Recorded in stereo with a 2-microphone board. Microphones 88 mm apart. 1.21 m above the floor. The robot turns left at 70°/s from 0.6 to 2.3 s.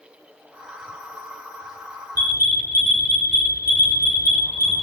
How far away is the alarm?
About 3.5 m.